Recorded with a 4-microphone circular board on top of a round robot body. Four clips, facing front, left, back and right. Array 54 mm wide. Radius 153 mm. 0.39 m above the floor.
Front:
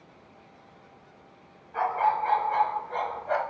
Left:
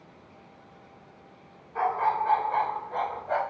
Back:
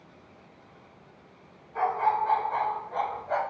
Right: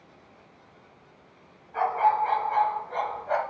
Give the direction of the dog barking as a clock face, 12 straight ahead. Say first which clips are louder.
Right 3 dB, even; 2 o'clock.